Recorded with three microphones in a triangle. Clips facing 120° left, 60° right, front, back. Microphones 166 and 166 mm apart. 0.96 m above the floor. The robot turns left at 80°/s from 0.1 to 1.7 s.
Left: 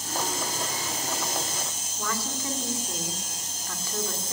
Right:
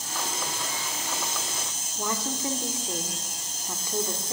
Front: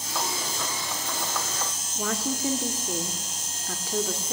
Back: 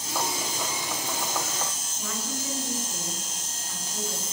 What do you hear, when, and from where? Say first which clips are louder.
1.9 s a woman speaking: right 2 dB, front 7 dB; 10° left, 2.5 m